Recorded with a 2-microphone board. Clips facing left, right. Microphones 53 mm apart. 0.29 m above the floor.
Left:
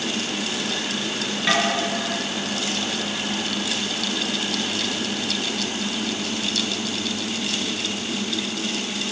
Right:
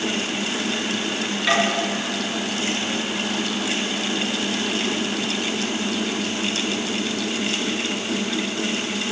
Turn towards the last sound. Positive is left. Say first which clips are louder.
# right 1 dB
turn(degrees=0)  # may be behind; listen again after turning